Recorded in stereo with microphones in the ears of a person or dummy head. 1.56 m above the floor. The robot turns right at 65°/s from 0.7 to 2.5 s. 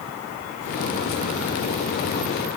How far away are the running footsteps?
I don't hear running footsteps.